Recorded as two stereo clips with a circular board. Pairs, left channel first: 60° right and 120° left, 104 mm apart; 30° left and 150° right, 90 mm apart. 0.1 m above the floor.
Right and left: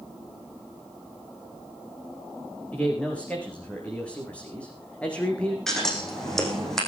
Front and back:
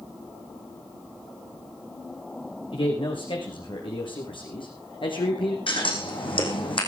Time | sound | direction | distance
2.7 | a man speaking | 15° left | 7.5 m
5.7 | scissors | 25° left | 4.5 m